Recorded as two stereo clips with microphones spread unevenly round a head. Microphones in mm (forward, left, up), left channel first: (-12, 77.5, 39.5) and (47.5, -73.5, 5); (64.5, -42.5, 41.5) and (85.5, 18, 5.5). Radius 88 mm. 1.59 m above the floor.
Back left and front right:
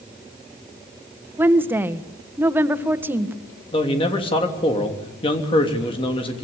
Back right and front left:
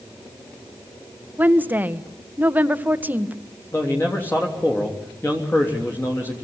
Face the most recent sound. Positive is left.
turn(degrees=175)